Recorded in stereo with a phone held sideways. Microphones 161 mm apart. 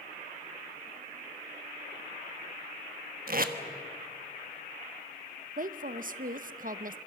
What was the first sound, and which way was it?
Tape being pulled, 60° right (ahead or behind).